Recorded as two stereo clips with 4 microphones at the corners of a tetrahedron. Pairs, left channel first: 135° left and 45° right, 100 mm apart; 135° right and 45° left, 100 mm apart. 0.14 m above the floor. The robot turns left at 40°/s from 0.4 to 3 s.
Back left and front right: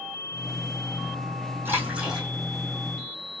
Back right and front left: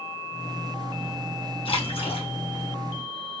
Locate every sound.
1.6 s a splash: 110° right, 2.5 m; by 2.3 s 135° right, 2.5 m